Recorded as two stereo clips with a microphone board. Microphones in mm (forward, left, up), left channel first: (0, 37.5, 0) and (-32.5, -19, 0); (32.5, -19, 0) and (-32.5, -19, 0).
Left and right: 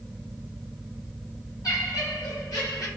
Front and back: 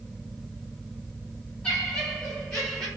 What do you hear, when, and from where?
1.6 s laughter: 70° left, 2 m; by 2.9 s 80° left, 1.4 m